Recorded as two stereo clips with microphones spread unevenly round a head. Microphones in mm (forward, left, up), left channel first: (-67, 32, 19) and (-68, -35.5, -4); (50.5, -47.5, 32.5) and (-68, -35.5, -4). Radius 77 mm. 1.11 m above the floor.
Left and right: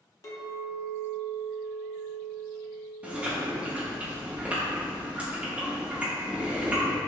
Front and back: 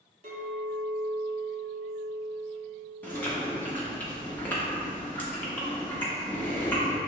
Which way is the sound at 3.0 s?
5° left.